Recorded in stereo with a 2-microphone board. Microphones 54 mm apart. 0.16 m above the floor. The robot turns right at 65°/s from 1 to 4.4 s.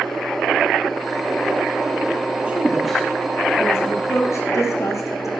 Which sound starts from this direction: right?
A woman speaking, at 2.5 s.